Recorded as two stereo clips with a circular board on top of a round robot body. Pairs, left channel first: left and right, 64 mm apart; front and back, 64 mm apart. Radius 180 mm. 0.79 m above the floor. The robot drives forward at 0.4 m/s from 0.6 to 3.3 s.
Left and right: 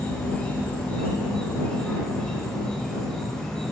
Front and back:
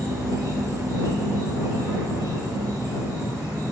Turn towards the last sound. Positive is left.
turn(degrees=165)